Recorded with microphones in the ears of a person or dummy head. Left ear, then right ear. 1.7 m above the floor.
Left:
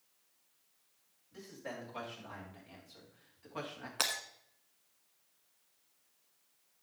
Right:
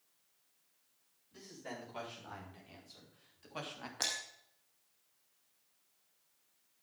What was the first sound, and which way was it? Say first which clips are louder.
A man speaking: left 2 dB; 5° left (ahead or behind).